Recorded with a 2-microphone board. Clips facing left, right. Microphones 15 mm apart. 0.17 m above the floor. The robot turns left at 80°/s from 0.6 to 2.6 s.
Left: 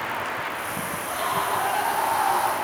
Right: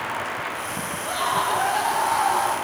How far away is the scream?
About 7.5 m.